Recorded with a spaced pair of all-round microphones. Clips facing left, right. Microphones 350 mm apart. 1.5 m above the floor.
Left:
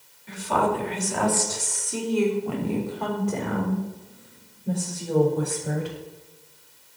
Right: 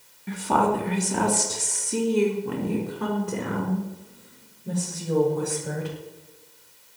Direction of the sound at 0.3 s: 65° right (ahead or behind).